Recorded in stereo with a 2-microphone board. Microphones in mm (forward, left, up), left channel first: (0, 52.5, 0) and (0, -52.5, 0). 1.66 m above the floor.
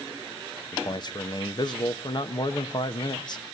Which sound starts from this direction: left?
A man speaking, at 0.7 s.